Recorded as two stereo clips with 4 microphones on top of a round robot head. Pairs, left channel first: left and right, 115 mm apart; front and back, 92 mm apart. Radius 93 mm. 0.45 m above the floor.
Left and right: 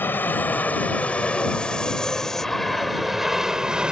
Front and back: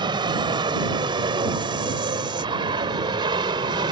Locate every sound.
0.0 s an aircraft: 160° left; by 3.9 s 170° right